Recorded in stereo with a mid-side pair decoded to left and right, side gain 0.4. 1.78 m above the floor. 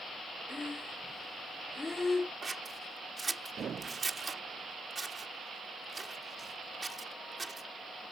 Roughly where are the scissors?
Ahead right.